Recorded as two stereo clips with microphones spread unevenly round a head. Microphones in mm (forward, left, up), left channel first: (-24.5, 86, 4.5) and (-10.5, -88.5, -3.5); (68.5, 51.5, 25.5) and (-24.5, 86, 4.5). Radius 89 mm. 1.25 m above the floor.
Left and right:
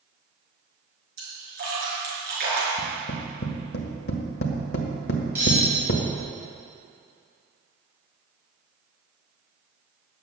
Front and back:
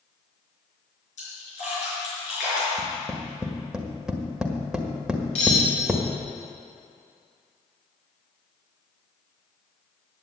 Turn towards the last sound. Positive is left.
turn(degrees=-5)